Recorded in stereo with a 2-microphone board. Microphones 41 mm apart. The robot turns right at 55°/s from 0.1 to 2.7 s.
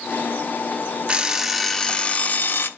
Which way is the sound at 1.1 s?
30° right.